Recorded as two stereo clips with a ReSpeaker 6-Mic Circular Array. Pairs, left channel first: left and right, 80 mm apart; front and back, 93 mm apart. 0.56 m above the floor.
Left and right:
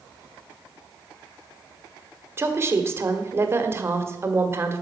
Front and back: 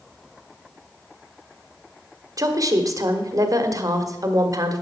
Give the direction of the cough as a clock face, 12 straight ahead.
I don't hear a cough.